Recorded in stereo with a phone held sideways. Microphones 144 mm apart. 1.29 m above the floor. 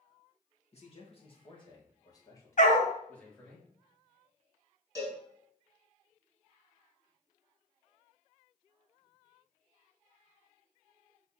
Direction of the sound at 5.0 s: 25° right (ahead or behind).